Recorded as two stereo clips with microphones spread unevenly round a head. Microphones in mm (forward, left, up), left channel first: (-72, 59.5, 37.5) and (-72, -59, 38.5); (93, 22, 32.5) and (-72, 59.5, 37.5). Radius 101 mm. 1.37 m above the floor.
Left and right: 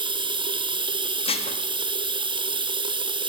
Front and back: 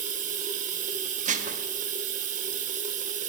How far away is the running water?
About 1.1 m.